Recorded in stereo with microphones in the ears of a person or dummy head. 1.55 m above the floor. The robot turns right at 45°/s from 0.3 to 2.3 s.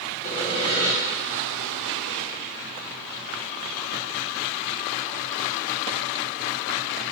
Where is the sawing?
40° left (ahead or behind), 1.6 m; by 0.9 s 10° left (ahead or behind), 1.6 m.